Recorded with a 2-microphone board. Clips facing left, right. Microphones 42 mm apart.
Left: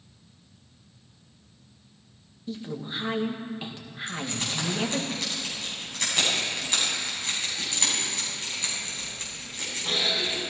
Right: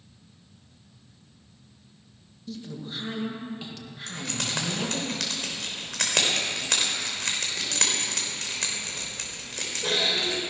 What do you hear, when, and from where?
2.5 s a woman speaking: 25° left (ahead or behind), 1.9 m
4.1 s keys jangling: 80° right, 4 m